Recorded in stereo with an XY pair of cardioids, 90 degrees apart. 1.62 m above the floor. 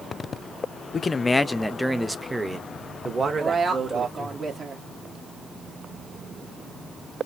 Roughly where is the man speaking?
Ahead left.